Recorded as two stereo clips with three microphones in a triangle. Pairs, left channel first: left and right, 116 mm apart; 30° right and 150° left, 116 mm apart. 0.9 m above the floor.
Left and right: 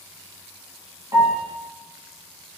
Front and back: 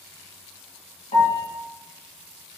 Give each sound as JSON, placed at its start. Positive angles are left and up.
{"t": 1.1, "sound": "a piano", "azimuth_deg": -30, "distance_m": 1.3}